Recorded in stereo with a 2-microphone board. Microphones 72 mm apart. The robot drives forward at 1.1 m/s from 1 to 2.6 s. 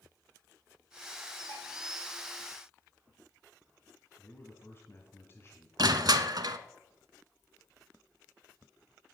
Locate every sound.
1.5 s dishes clattering: 55° left (ahead or behind), 5 m; by 1.6 s 60° left (ahead or behind), 5 m
4.2 s a man speaking: 35° left (ahead or behind), 1.5 m
5.8 s crushing: 65° right (ahead or behind), 0.7 m